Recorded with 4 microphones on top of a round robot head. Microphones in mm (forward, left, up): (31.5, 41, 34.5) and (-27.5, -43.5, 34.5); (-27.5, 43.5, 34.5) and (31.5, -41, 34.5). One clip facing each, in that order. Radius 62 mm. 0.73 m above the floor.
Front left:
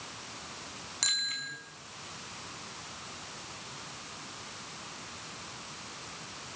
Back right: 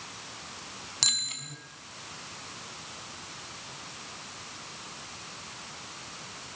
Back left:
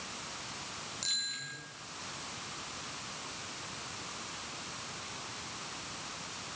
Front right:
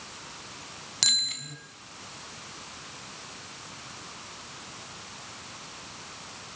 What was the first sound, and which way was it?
A bicycle bell, 65° right.